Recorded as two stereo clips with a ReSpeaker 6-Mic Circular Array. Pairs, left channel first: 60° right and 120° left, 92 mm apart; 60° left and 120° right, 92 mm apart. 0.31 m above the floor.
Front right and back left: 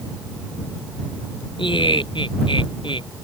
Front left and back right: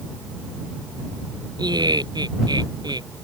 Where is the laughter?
80° right.